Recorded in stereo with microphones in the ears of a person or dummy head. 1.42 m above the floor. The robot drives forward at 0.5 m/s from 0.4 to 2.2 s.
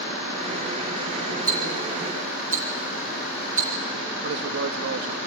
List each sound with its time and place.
1.5 s ticking: 45° right (ahead or behind), 3.5 m; by 3.7 s 40° right (ahead or behind), 4 m
4.2 s a man speaking: 65° right (ahead or behind), 1.6 m